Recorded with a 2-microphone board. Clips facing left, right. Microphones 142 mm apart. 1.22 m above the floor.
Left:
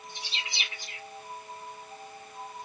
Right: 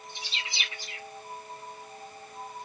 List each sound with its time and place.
0.1 s a bird: 55° left (ahead or behind), 2 m